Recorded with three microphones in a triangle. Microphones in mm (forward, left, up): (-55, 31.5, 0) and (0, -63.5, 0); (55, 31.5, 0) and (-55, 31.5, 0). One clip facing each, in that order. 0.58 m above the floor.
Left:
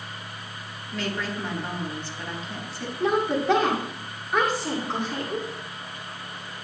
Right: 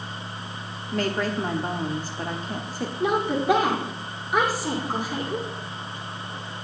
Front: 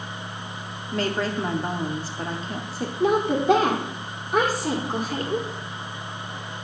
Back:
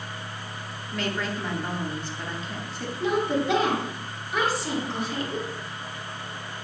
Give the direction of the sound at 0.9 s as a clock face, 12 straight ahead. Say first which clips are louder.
Right 5 dB, front 5 dB; 1 o'clock.